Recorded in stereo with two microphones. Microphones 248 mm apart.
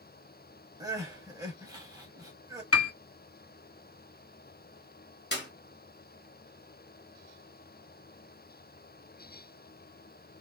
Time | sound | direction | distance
0.8 | crying | 15° right (ahead or behind) | 1.5 m
2.7 | a piano | 65° left (ahead or behind) | 0.7 m
5.3 | a clap | 45° left (ahead or behind) | 1.9 m